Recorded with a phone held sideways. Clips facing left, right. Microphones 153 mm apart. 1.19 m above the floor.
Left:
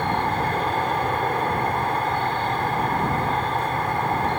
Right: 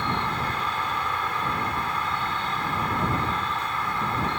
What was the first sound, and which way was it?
An insect, 60° left (ahead or behind).